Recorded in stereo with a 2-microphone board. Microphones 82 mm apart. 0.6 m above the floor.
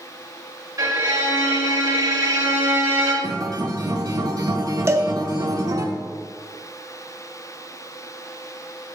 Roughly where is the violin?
Right.